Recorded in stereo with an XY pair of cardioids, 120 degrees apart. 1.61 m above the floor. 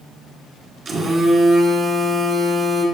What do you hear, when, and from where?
0.8 s a phone buzzing: 40° right, 1.2 m